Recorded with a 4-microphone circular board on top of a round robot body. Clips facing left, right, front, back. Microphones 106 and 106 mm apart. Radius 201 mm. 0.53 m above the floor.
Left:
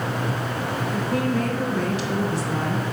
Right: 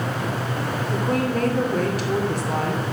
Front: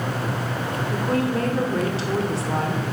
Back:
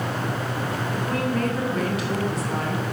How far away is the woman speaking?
About 2.5 m.